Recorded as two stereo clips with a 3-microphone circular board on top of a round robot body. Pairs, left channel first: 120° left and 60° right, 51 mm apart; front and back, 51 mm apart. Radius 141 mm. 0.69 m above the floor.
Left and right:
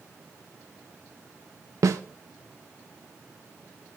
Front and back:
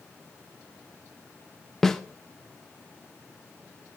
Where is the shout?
I don't hear a shout.